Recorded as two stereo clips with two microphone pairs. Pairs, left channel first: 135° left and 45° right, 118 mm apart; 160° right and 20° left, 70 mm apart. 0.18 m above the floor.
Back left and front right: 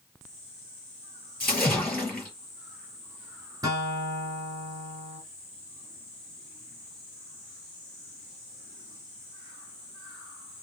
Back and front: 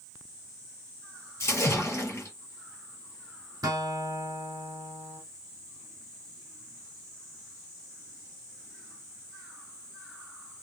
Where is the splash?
155° right, 2 m.